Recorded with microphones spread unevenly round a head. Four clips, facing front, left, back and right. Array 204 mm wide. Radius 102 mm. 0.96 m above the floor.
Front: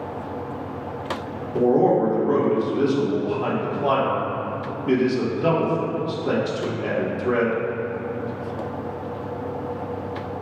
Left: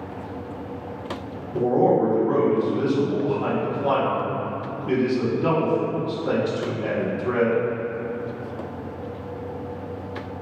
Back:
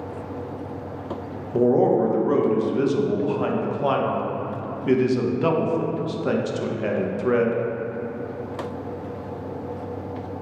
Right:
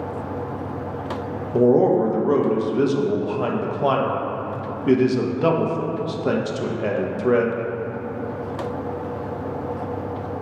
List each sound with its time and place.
1.5 s a man speaking: 100° right, 0.7 m